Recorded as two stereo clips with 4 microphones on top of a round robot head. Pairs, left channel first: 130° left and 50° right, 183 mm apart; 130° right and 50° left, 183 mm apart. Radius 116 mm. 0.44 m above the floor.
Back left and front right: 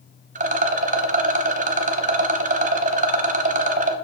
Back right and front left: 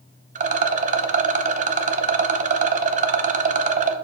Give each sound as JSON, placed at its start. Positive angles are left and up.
{"t": 0.3, "sound": "a rattle", "azimuth_deg": 0, "distance_m": 0.7}